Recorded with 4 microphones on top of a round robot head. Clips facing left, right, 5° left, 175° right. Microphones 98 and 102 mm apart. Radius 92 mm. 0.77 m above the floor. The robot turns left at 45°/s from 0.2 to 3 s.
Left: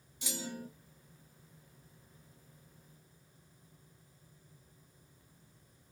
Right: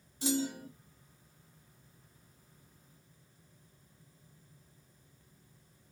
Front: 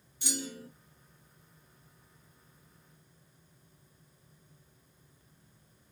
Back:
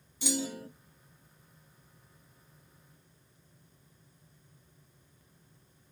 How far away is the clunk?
About 0.8 m.